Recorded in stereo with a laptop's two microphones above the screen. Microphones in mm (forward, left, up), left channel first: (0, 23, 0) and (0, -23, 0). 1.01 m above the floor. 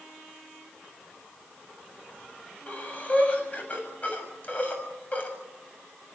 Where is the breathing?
35° left (ahead or behind), 7 m.